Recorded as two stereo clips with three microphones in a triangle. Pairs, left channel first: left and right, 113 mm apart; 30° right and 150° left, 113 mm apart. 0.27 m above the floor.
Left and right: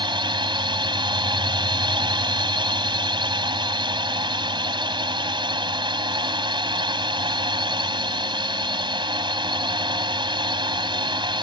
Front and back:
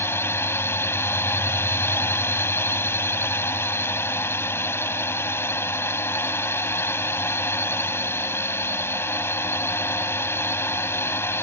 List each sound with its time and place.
0.0 s a drone: 90° right